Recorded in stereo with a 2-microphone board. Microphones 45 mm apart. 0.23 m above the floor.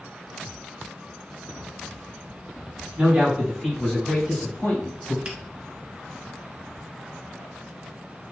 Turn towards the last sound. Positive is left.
turn(degrees=-20)  # may be behind; listen again after turning